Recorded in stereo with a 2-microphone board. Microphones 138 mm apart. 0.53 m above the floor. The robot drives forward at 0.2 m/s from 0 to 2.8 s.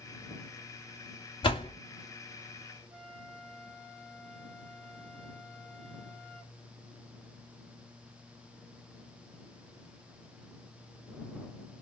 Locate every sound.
1.4 s a door slam: 35° left (ahead or behind), 0.9 m
2.9 s a flute: 40° right (ahead or behind), 1.4 m